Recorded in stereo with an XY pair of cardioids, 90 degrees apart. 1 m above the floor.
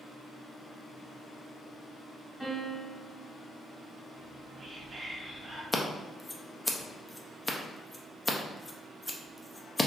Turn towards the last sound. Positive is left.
turn(degrees=20)